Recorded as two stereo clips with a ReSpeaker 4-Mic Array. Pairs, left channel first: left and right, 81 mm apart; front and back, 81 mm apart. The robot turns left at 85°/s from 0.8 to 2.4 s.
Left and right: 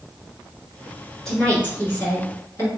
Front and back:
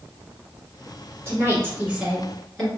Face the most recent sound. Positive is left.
turn(degrees=75)